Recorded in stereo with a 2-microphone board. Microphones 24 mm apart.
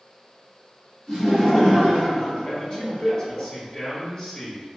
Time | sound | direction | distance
1.1 | laughter | 30° left (ahead or behind) | 1.7 m
2.5 | a man speaking | 30° left (ahead or behind) | 1.2 m